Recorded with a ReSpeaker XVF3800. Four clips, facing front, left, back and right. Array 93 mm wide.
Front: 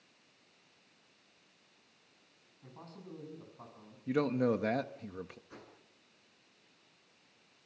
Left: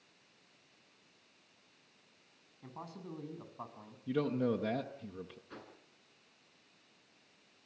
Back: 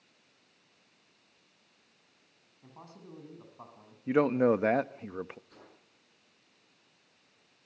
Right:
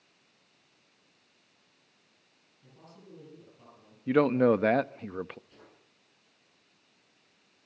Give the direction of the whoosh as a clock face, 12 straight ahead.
10 o'clock.